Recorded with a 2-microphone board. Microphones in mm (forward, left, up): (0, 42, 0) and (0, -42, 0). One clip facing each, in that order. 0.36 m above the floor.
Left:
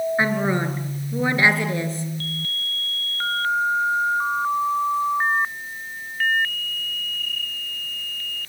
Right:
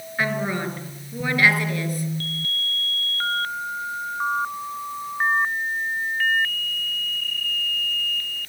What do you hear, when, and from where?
0.2 s a woman speaking: 25° left (ahead or behind), 5.5 m